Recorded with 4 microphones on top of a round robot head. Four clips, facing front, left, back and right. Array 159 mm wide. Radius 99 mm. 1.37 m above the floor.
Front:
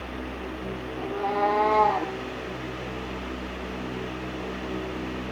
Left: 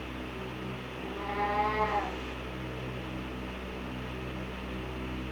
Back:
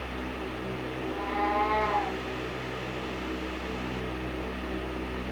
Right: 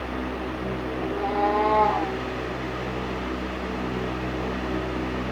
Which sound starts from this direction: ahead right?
A cat meowing, at 1.0 s.